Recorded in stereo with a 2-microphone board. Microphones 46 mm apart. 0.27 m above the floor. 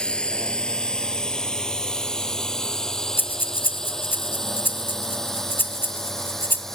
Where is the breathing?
50° left (ahead or behind).